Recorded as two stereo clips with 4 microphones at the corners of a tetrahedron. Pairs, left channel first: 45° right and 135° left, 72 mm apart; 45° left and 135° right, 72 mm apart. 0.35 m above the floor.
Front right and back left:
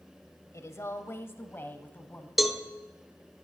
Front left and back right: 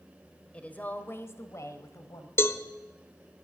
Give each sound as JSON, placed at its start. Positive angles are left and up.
{"t": 0.5, "sound": "a woman speaking", "azimuth_deg": -25, "distance_m": 1.2}
{"t": 2.4, "sound": "a cowbell", "azimuth_deg": 50, "distance_m": 0.8}